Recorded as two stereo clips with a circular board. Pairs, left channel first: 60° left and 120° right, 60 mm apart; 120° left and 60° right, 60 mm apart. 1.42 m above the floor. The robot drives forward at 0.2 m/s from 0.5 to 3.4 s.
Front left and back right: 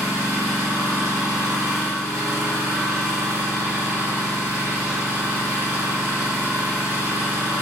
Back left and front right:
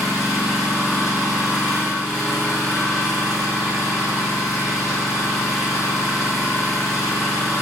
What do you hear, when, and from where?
0.0 s an engine running: 130° right, 1.6 m; by 7.6 s 145° right, 2 m